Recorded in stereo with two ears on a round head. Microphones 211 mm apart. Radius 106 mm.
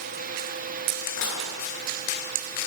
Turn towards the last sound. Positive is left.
turn(degrees=75)  # may be behind; listen again after turning